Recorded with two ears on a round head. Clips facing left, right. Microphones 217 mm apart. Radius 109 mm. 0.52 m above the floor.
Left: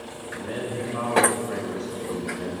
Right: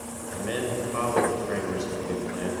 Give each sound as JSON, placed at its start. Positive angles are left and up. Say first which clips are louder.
{"t": 0.2, "sound": "a man speaking", "louder": "right 2 dB", "side_deg": -55, "distance_m": 2.5}